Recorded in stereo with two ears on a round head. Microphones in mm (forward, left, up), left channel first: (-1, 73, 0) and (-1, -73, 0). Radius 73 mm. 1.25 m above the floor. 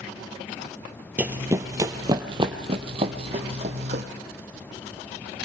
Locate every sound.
1.2 s running footsteps: 10° right (ahead or behind), 1.3 m; by 4.0 s 45° right (ahead or behind), 2 m